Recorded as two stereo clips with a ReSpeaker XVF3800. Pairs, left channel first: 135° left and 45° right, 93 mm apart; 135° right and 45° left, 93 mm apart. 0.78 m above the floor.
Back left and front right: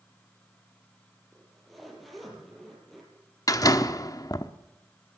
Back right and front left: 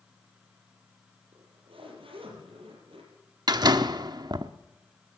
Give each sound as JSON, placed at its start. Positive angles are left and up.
{"t": 1.3, "sound": "a zipper", "azimuth_deg": 45, "distance_m": 6.0}
{"t": 3.5, "sound": "a door slam", "azimuth_deg": 85, "distance_m": 0.9}